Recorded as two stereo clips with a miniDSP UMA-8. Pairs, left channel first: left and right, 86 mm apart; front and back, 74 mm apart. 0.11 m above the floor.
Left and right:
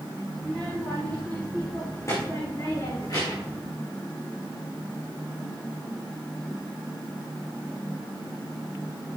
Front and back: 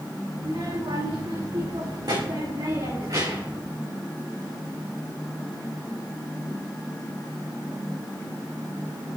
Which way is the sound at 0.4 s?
165° left.